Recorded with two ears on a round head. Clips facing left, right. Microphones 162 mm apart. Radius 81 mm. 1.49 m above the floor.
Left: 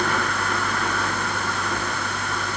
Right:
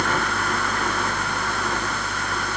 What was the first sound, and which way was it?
Only background noise.